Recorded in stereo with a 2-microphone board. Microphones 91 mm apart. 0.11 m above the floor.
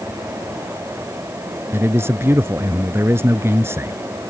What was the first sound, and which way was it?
A man speaking, 30° right (ahead or behind).